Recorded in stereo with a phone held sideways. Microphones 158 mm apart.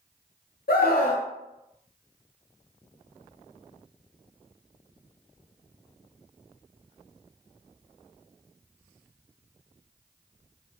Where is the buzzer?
No buzzer in this recording.